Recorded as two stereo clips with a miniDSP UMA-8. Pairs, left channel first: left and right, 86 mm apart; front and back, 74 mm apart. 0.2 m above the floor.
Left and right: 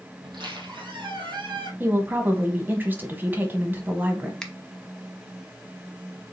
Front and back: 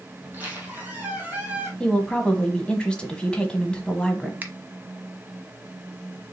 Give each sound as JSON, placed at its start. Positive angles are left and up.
{"t": 0.2, "sound": "a squeak", "azimuth_deg": -115, "distance_m": 1.7}
{"t": 1.8, "sound": "a woman speaking", "azimuth_deg": -60, "distance_m": 1.1}
{"t": 4.4, "sound": "a finger snap", "azimuth_deg": 165, "distance_m": 0.8}